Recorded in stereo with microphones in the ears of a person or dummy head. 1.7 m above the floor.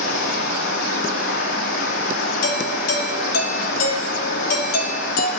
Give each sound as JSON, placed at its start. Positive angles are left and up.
{"t": 0.0, "sound": "running water", "side_deg": 60, "distance_m": 1.0}
{"t": 2.4, "sound": "a doorbell", "side_deg": 70, "distance_m": 1.0}